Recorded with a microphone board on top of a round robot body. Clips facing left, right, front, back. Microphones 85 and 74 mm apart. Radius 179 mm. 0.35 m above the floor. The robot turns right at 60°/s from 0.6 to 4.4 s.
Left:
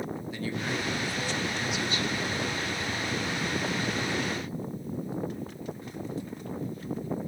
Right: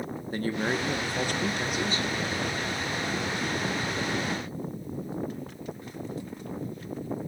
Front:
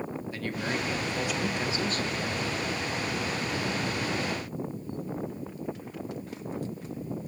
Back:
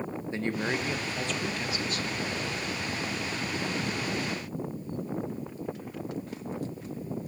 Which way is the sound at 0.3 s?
120° right.